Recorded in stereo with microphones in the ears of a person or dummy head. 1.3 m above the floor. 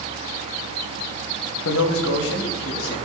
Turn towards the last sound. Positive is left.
turn(degrees=60)  # may be behind; listen again after turning